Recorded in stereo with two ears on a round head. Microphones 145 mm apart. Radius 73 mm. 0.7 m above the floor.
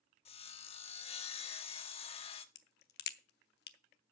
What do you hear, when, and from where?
0.2 s sawing: 35° left (ahead or behind), 1.1 m
2.5 s a crack: 65° left (ahead or behind), 0.9 m